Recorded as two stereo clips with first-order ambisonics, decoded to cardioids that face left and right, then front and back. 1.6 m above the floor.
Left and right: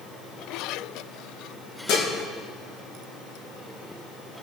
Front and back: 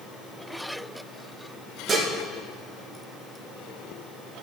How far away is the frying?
No frying in this recording.